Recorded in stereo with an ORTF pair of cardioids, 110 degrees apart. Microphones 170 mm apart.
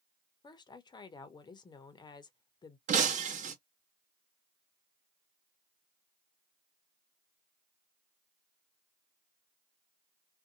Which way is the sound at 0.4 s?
25° left.